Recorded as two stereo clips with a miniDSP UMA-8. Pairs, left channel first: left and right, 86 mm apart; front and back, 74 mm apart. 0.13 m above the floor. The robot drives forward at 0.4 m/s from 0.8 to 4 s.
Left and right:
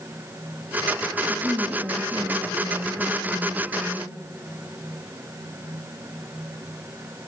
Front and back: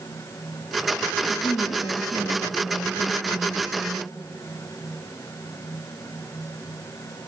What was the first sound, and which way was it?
A woman speaking, 10° right.